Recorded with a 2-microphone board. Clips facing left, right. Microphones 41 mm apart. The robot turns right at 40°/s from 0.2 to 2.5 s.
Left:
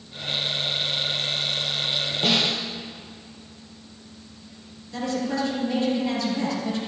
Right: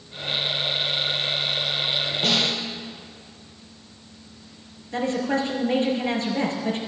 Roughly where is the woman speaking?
Right.